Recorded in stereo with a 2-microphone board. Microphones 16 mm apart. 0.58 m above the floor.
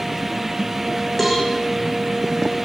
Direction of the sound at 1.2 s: 10° left (ahead or behind).